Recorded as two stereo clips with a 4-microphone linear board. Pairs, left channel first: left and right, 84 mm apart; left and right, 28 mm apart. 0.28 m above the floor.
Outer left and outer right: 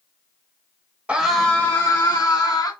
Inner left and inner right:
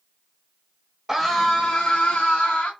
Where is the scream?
15° right (ahead or behind), 1.0 m; by 2.7 s 45° left (ahead or behind), 2 m.